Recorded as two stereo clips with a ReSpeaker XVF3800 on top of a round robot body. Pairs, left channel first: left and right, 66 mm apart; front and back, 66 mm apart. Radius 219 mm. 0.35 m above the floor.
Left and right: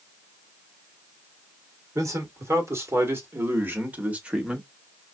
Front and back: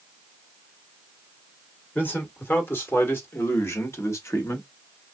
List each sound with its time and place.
1.9 s a man speaking: 60° right, 2.5 m; by 4.7 s 15° right, 1.6 m